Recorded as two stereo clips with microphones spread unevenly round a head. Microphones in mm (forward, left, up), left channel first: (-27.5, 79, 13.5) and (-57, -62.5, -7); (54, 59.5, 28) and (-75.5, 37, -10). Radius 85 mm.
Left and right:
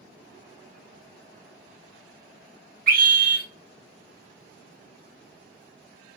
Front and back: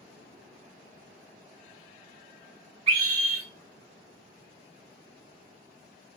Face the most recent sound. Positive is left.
turn(degrees=-120)